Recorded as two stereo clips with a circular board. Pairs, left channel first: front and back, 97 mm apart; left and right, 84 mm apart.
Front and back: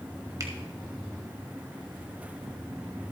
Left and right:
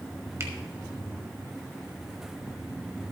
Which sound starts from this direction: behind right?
A finger snap, at 0.4 s.